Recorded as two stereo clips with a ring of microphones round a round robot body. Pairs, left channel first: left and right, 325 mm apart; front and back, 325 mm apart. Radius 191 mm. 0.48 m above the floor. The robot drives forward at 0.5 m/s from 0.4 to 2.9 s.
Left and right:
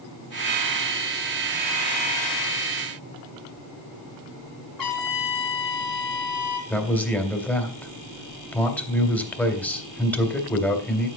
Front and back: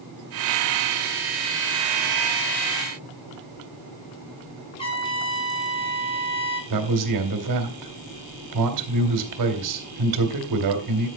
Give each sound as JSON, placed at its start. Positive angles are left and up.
{"t": 4.8, "sound": "a trumpet", "azimuth_deg": 75, "distance_m": 2.5}
{"t": 6.7, "sound": "a man speaking", "azimuth_deg": 175, "distance_m": 2.0}